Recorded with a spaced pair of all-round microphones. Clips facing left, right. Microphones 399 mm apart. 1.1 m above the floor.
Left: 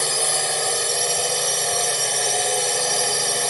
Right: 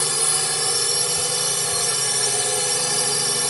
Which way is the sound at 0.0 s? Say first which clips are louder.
Left 2 dB; 20° right (ahead or behind).